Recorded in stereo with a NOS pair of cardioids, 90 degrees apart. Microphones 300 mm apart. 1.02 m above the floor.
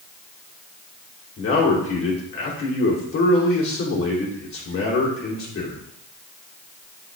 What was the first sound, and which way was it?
A man speaking, 45° left.